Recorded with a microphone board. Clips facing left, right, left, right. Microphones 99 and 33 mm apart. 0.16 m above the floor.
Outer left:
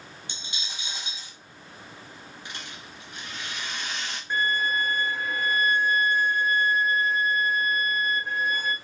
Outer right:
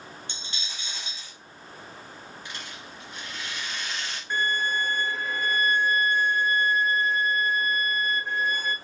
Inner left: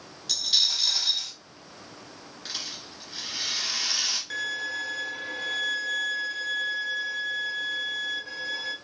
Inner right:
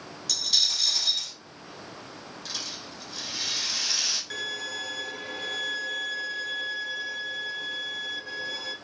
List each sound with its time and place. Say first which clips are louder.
0.3 s a dropped coin: even, inner left 1 dB; 15° left (ahead or behind), 1.5 m
2.5 s a rattle: outer left 1 dB, inner left 1 dB; 20° left (ahead or behind), 1.4 m
4.3 s a violin: outer left 1 dB, inner left 2 dB; centre (ahead or behind), 0.8 m